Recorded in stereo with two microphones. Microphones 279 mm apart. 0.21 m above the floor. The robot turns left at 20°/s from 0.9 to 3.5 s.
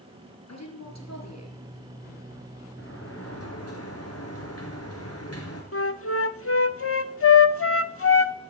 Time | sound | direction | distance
0.5 | a woman speaking | 85° left | 4 m
2.8 | a sliding door | 45° left (ahead or behind) | 3 m
5.7 | a flute | 50° left (ahead or behind) | 0.6 m